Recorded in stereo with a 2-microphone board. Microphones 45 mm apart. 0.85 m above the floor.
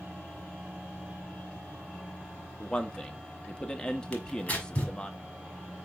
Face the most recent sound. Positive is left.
turn(degrees=40)  # may be behind; listen again after turning